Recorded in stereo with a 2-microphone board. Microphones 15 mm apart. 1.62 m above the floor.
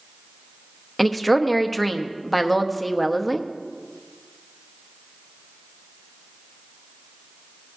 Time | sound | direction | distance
1.0 | a woman speaking | 15° left (ahead or behind) | 0.9 m